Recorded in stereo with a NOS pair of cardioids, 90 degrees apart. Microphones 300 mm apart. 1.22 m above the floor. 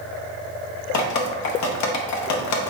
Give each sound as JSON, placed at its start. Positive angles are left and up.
{"t": 0.9, "sound": "dripping", "azimuth_deg": 70, "distance_m": 0.6}